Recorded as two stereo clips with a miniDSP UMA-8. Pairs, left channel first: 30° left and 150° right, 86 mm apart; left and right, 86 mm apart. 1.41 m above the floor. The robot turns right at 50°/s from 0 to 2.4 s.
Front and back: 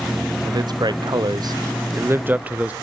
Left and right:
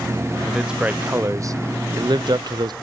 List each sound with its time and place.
0.5 s a man speaking: straight behind, 0.5 m; by 2.7 s 80° right, 0.5 m